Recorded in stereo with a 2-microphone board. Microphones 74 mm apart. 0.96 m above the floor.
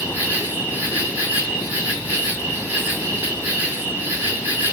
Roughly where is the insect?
Right.